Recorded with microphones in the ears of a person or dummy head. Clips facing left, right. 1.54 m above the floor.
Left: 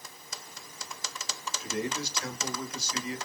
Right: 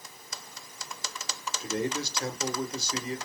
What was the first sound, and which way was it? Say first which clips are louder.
A man speaking: right 3 dB; 35° right (ahead or behind).